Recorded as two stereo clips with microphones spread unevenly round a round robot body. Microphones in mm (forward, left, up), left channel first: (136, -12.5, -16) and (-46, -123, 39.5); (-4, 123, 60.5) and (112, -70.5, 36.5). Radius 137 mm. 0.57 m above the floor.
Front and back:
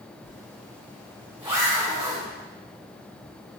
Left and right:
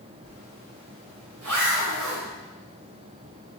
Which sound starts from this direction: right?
A zipper, at 0.2 s.